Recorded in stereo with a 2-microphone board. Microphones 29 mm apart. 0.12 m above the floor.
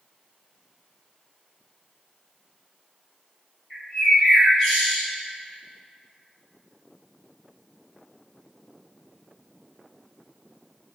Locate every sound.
3.7 s a bird: centre (ahead or behind), 1.3 m